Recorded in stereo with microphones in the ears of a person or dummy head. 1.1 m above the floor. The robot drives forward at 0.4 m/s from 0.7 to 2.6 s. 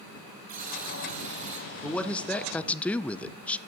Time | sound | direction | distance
0.5 | a buzzer | 40° right (ahead or behind) | 1.7 m
1.8 | a man speaking | 5° left (ahead or behind) | 0.7 m